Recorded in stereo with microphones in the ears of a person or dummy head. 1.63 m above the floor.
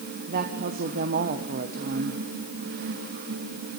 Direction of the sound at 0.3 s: 50° right (ahead or behind).